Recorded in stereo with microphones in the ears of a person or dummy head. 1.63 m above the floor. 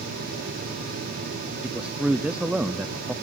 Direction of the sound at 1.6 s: 5° right (ahead or behind).